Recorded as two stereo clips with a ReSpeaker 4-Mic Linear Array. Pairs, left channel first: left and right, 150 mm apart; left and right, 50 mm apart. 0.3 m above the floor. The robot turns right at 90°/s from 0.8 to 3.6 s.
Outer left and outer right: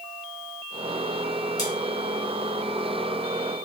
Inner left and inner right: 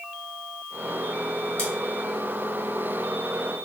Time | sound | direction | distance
1.6 | scissors | 25° left (ahead or behind) | 2.0 m